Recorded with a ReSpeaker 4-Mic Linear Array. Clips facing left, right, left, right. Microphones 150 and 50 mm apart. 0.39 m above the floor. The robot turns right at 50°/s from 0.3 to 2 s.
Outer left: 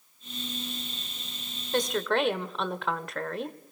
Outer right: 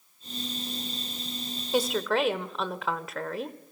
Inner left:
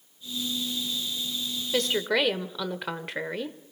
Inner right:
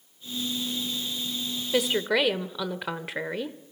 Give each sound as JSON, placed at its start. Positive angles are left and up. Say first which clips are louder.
{"t": 1.7, "sound": "a woman speaking", "louder": "outer right 1 dB, inner right 1 dB", "side_deg": -10, "distance_m": 1.0}